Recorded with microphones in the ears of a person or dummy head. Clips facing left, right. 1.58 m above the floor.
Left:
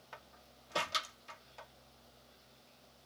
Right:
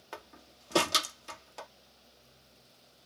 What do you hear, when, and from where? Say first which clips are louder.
0.1 s a door slam: right 9 dB; 70° right (ahead or behind)